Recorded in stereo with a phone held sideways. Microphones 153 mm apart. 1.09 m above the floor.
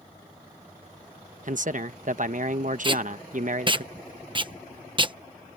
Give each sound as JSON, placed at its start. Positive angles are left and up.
{"t": 1.4, "sound": "a man speaking", "side_deg": -55}
{"t": 2.8, "sound": "tape being pulled", "side_deg": -30}